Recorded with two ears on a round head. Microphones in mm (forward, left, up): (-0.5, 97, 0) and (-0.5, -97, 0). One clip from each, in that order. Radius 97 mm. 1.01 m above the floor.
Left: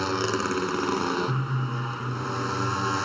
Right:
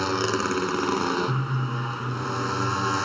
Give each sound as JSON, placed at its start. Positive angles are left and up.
{"t": 0.0, "sound": "a motorcycle", "side_deg": -5}